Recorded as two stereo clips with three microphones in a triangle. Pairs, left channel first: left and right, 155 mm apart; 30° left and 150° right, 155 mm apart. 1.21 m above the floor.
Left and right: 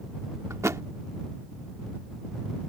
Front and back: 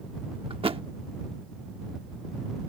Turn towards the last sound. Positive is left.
turn(degrees=-150)